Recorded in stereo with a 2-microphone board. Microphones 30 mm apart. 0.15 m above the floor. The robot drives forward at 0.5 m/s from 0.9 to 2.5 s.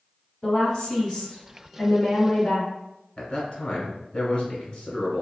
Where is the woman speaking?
25° left (ahead or behind), 1.3 m; by 2.7 s 20° left (ahead or behind), 1.6 m.